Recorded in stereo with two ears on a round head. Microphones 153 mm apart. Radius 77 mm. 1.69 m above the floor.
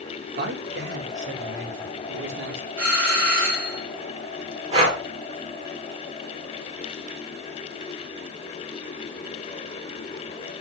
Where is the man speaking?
70° right (ahead or behind), 1.8 m; by 2.7 s 80° right, 3 m.